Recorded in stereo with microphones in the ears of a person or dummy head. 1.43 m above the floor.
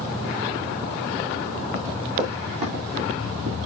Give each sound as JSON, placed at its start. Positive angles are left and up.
{"t": 1.7, "sound": "running footsteps", "side_deg": -30, "distance_m": 4.0}